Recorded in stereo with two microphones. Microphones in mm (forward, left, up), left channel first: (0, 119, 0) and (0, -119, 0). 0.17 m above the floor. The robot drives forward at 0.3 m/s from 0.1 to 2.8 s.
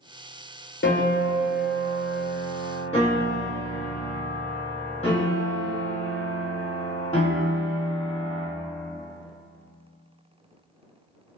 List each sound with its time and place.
0.8 s a piano: 55° left (ahead or behind), 0.6 m; by 8.5 s 25° left (ahead or behind), 1.0 m